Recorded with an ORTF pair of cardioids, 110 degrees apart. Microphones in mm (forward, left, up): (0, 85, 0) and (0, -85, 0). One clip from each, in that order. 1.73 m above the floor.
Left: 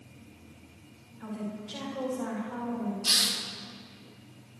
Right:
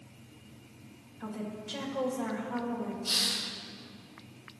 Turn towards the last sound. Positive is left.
turn(degrees=65)